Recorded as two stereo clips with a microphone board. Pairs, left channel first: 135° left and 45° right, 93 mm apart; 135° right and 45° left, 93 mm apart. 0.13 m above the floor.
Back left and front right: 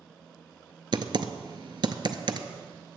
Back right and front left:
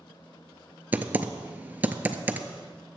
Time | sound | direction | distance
0.9 | typing on a keyboard | 25° right | 0.5 m